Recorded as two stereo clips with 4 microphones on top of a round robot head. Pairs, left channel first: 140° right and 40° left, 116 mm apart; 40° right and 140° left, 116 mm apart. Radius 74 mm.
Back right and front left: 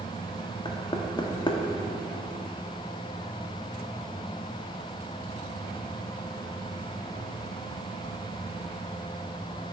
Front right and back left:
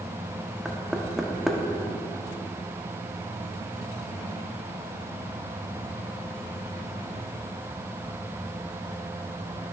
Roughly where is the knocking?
Behind right.